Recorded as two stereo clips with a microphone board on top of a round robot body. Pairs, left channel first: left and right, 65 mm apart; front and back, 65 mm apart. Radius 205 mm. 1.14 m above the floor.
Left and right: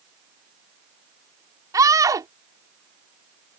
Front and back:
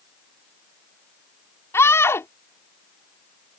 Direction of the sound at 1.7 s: 55° right.